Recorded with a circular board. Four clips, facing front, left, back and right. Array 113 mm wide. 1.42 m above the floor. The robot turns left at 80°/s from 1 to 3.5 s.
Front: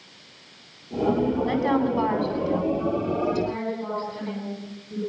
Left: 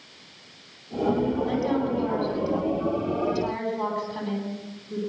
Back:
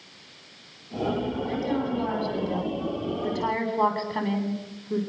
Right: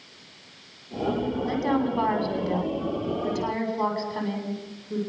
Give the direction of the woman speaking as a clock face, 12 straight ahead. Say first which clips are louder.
Even, front 5 dB; 12 o'clock.